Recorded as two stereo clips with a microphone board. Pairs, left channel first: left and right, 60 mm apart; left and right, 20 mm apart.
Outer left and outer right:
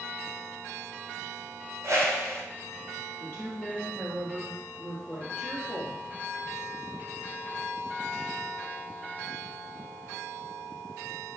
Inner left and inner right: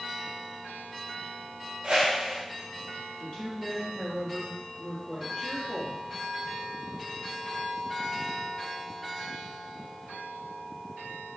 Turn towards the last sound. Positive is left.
turn(degrees=35)  # may be behind; listen again after turning